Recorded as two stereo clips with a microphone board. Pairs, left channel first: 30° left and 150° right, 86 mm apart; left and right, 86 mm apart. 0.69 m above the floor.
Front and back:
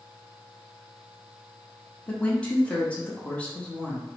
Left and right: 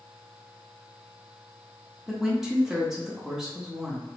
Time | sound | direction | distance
2.1 | a woman speaking | 15° right | 0.9 m